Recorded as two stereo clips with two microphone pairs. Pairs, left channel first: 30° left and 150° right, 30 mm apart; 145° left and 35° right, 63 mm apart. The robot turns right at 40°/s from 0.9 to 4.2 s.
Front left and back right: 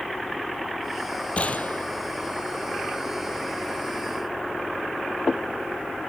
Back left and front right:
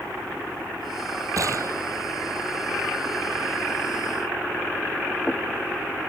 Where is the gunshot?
10° right; by 1.9 s 10° left.